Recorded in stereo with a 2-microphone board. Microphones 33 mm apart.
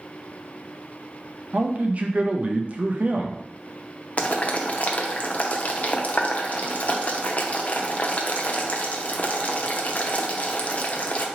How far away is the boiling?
About 0.5 m.